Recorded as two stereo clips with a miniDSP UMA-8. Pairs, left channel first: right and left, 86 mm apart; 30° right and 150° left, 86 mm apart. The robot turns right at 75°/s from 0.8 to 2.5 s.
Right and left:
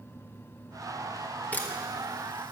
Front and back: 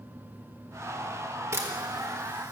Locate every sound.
1.5 s a camera shutter: 160° right, 1.5 m; by 2.5 s 85° right, 1.5 m